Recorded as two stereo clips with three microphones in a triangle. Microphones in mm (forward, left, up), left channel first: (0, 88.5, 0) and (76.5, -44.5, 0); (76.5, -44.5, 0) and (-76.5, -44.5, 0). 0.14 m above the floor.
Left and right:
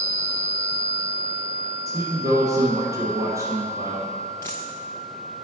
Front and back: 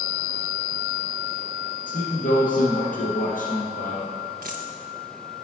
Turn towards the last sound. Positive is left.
turn(degrees=-170)